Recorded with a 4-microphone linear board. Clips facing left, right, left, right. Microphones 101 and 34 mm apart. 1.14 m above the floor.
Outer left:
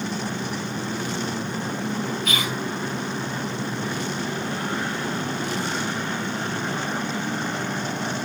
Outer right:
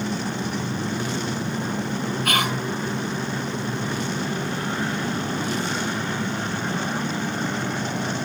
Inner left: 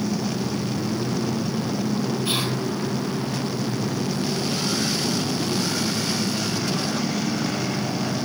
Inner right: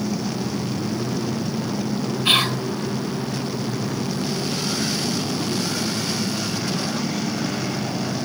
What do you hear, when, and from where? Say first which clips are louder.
2.2 s whispering: outer right 4 dB, inner right 6 dB; 60° right (ahead or behind), 1.5 m